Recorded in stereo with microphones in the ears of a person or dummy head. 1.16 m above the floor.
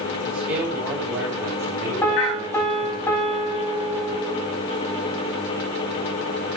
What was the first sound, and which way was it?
A man speaking, 5° right (ahead or behind).